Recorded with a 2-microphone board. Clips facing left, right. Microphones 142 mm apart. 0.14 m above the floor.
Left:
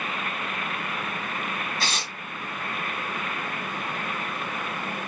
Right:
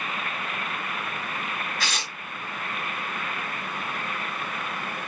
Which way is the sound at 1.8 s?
30° left (ahead or behind).